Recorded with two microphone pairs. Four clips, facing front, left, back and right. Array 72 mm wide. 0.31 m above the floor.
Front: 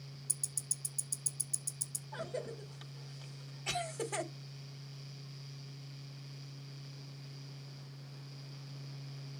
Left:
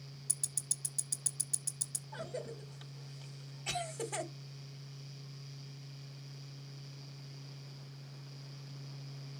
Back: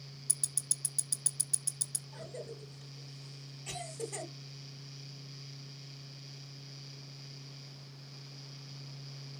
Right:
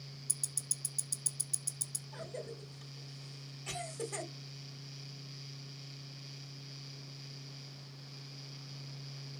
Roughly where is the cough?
Ahead.